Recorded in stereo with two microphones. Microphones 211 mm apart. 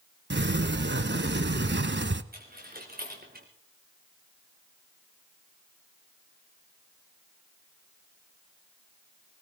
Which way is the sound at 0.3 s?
60° right (ahead or behind).